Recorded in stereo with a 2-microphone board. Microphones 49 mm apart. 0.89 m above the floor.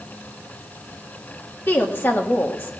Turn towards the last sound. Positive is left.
turn(degrees=45)  # may be behind; listen again after turning